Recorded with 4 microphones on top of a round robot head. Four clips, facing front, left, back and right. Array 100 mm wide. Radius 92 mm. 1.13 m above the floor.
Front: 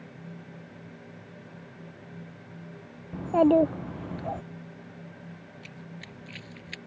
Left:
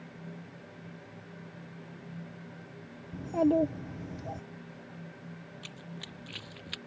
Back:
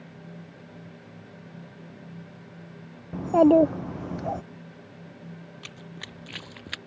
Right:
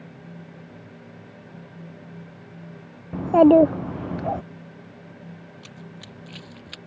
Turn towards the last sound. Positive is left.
turn(degrees=-175)